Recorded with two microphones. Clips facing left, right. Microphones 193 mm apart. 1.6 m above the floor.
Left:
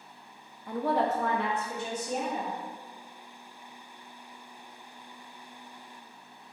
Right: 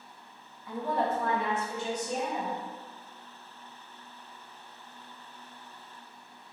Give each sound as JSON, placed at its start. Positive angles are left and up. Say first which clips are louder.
{"t": 0.7, "sound": "a woman speaking", "louder": "left 3 dB", "side_deg": 50, "distance_m": 0.5}